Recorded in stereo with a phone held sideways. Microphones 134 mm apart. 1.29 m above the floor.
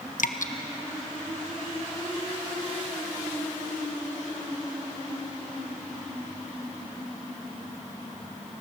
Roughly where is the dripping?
Left.